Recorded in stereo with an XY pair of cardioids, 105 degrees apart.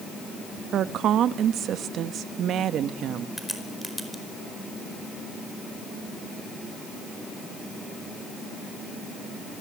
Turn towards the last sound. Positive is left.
turn(degrees=0)